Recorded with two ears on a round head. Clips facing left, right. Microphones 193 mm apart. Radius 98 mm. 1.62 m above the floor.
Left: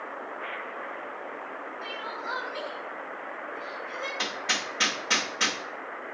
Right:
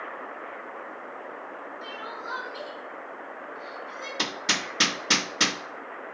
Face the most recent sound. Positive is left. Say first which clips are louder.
# right 2 dB
turn(degrees=-55)  # may be behind; listen again after turning